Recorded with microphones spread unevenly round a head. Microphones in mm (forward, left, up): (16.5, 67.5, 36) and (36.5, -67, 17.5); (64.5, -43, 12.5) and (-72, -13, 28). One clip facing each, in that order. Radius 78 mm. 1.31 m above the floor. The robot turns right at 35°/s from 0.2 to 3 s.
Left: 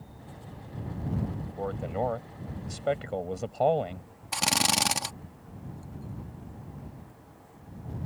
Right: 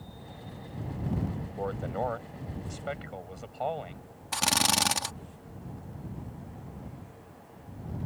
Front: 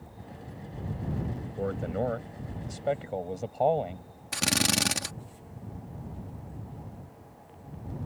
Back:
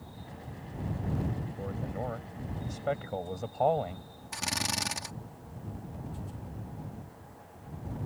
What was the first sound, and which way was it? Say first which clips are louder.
A man speaking: left 2 dB, front 11 dB; 10° left.